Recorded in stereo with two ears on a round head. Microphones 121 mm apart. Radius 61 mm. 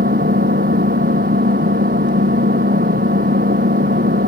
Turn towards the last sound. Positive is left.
turn(degrees=-65)  # may be behind; listen again after turning